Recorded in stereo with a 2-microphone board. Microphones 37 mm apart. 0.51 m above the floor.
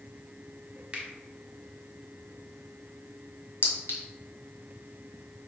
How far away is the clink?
About 1.5 m.